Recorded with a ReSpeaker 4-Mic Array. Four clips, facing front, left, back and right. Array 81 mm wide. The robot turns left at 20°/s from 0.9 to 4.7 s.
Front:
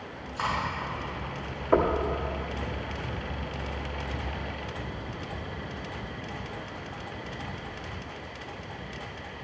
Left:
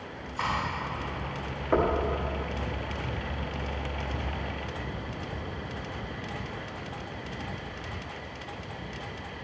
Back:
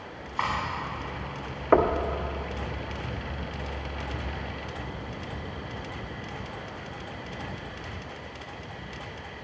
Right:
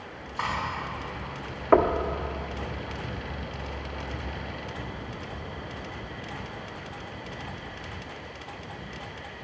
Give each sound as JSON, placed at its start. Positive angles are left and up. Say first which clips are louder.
{"t": 0.4, "sound": "cutlery clinking", "louder": "even, back 1 dB", "azimuth_deg": 180, "distance_m": 3.5}
{"t": 1.7, "sound": "knocking", "louder": "right 5 dB, back 2 dB", "azimuth_deg": -130, "distance_m": 0.6}